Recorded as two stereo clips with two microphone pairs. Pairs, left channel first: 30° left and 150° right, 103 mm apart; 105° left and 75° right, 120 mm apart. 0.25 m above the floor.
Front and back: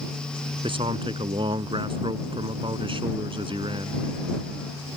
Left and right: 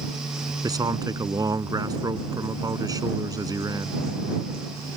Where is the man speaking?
125° right.